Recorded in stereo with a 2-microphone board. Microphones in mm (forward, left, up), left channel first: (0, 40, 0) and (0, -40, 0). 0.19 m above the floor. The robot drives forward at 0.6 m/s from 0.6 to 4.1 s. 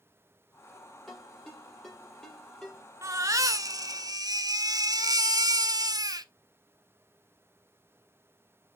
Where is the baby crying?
35° right (ahead or behind), 1.1 m; by 6.3 s 50° right (ahead or behind), 0.8 m.